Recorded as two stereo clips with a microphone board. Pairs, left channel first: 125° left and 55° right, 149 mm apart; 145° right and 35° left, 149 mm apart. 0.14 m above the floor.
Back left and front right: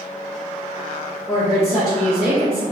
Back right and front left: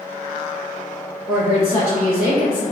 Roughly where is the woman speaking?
Behind.